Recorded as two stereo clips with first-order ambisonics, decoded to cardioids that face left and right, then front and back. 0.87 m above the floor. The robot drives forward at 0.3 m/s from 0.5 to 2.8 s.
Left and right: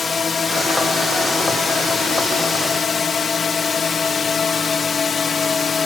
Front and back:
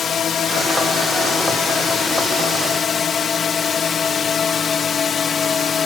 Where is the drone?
35° left; by 5.9 s 40° left.